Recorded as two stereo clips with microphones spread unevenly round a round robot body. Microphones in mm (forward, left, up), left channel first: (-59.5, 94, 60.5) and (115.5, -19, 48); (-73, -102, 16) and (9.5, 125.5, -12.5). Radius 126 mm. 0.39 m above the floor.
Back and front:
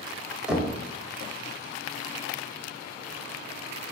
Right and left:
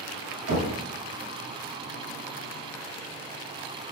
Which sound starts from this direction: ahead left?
Knocking, at 0.5 s.